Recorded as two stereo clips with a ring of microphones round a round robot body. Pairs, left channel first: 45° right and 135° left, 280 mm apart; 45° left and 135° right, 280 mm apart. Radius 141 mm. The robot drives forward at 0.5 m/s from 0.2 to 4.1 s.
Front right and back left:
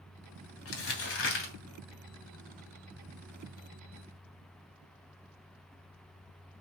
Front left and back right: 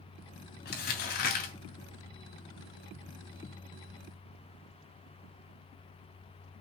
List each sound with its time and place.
0.7 s crumpling: 10° right, 3 m